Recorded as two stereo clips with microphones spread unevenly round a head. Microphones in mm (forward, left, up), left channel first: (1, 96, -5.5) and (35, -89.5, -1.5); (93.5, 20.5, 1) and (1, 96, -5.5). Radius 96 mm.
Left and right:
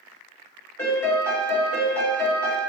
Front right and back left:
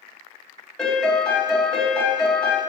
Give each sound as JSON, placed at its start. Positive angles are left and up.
{"t": 0.8, "sound": "a piano", "azimuth_deg": 30, "distance_m": 1.4}